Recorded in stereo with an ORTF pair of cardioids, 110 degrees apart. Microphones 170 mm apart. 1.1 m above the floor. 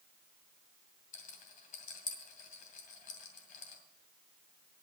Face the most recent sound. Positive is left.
turn(degrees=55)